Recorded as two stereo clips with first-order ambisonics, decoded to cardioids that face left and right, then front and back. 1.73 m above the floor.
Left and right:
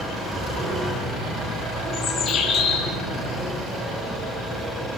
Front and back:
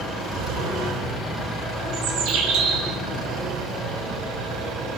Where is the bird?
150° left, 5.5 m.